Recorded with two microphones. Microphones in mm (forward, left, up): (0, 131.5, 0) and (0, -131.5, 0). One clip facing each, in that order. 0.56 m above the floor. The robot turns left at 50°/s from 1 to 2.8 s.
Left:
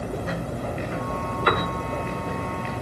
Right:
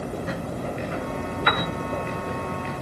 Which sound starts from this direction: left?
A piano, at 1.5 s.